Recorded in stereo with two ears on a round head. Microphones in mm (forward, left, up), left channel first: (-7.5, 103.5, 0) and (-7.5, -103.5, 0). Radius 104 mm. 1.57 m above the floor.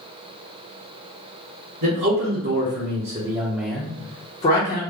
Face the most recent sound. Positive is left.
turn(degrees=45)  # may be behind; listen again after turning